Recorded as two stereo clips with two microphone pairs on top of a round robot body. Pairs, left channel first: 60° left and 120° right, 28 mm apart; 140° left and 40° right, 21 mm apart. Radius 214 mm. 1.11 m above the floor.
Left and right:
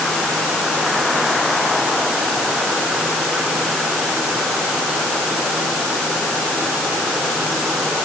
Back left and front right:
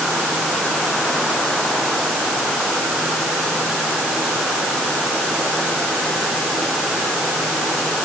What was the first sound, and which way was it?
Only background noise.